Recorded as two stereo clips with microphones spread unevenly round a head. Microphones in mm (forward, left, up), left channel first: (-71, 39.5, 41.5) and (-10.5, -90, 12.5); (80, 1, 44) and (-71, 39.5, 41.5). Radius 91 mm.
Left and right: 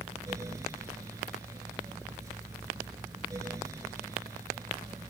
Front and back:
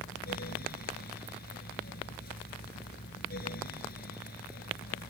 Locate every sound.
0.0 s a fan: 10° left